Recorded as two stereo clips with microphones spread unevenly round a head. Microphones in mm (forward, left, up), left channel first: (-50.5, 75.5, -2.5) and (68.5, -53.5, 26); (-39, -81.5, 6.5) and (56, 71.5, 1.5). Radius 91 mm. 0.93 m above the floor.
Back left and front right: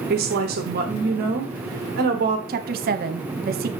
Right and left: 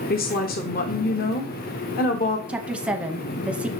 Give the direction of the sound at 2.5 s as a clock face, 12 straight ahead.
1 o'clock.